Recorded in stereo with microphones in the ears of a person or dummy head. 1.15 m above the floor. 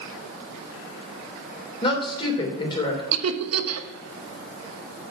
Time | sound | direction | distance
1.8 | a woman speaking | 25° left (ahead or behind) | 3 m
3.1 | laughter | 85° right | 1.2 m